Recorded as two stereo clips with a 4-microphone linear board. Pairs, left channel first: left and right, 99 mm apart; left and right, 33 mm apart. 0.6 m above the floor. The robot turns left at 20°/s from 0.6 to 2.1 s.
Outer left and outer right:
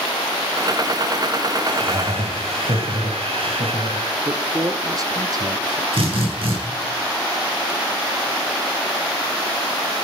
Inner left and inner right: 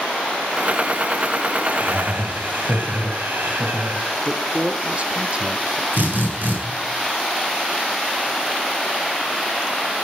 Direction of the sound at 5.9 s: 70° right (ahead or behind).